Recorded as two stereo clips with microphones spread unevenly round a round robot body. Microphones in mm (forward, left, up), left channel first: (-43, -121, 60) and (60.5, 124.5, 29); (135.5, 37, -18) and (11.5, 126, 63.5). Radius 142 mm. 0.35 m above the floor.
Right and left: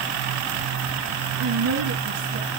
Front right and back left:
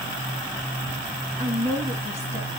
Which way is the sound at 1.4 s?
60° left.